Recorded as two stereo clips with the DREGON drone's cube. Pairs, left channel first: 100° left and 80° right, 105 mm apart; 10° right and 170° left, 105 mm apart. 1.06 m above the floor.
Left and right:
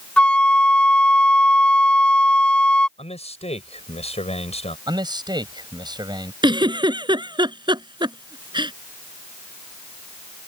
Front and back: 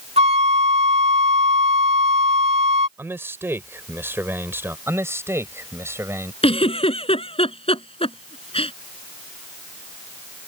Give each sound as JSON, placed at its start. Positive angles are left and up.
{"t": 0.2, "sound": "a flute", "azimuth_deg": 180}
{"t": 3.0, "sound": "a man speaking", "azimuth_deg": 100}
{"t": 4.9, "sound": "a man speaking", "azimuth_deg": -125}
{"t": 6.4, "sound": "a giggle", "azimuth_deg": -35}